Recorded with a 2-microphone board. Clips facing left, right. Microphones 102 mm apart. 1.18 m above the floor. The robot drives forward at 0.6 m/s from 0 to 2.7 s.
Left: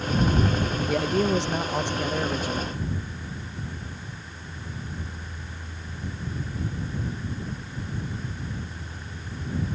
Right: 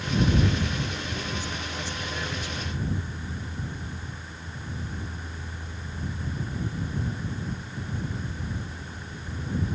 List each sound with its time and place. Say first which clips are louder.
0.9 s a man speaking: left 11 dB; 80° left; by 2.8 s 40° left (ahead or behind)